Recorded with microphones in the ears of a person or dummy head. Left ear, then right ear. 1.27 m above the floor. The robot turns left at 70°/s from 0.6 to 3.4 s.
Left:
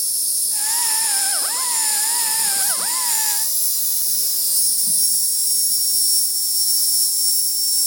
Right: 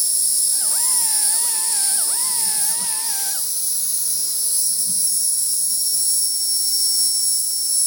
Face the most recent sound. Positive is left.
turn(degrees=20)  # may be behind; listen again after turning